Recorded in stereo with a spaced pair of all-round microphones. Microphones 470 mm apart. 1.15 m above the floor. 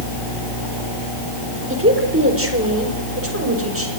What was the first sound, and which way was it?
A woman speaking, 25° right (ahead or behind).